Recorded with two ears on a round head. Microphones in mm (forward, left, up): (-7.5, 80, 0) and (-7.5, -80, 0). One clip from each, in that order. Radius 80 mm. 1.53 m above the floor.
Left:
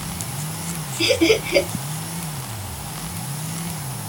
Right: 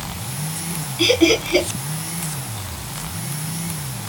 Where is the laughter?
20° right (ahead or behind), 3 m.